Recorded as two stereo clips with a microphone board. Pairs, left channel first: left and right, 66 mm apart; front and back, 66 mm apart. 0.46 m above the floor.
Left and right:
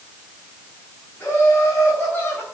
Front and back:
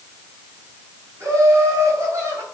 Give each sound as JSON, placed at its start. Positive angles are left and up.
{"t": 1.2, "sound": "laughter", "azimuth_deg": 145, "distance_m": 4.0}